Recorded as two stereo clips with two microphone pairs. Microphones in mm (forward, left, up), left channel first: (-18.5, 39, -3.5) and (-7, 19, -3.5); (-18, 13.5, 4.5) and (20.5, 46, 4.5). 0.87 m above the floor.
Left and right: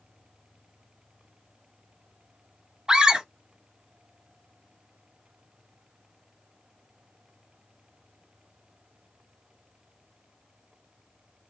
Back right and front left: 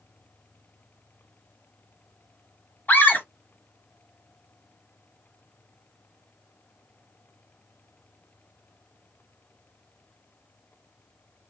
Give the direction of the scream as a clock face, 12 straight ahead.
4 o'clock.